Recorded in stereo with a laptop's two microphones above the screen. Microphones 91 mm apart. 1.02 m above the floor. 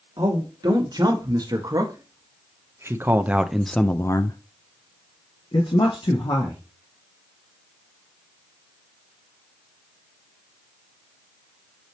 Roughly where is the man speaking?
Right.